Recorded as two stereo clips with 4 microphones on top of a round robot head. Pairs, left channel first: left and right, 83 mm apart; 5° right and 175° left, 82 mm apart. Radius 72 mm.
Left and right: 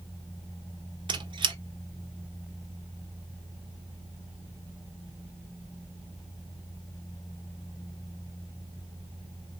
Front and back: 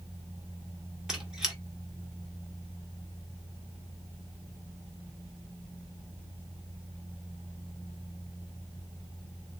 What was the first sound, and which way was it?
A squeak, 105° right.